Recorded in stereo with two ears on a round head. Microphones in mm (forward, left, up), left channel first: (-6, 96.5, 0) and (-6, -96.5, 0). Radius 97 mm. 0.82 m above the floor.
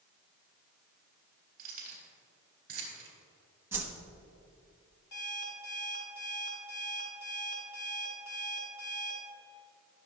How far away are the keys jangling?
About 3.5 m.